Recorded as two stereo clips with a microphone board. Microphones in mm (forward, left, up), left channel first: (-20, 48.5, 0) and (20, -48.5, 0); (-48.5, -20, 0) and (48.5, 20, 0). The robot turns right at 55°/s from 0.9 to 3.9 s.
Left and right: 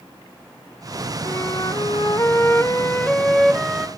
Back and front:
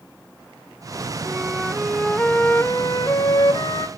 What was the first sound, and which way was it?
A flute, 80° left.